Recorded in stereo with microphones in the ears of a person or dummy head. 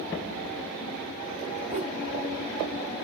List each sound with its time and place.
1.7 s a whoosh: 35° right (ahead or behind), 0.7 m